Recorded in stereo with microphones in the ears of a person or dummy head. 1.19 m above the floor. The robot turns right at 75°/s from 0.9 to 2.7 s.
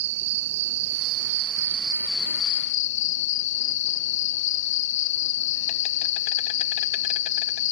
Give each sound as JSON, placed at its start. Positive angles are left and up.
{"t": 0.0, "sound": "an insect", "azimuth_deg": -95}